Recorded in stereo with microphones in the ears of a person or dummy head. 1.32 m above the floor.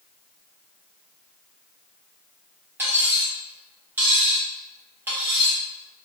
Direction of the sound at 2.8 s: 15° right (ahead or behind).